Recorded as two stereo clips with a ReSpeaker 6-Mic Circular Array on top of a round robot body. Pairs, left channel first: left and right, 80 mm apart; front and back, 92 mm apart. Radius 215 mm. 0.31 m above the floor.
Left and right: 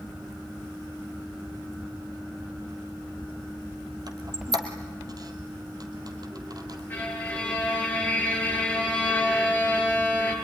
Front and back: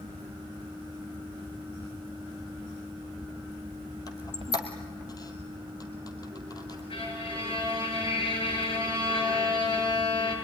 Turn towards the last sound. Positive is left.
turn(degrees=20)